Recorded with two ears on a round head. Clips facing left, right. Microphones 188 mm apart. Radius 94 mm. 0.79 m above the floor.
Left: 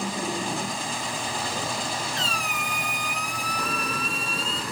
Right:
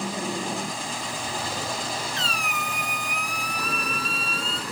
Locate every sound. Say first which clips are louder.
2.2 s a squeak: even; 50° right (ahead or behind), 0.6 m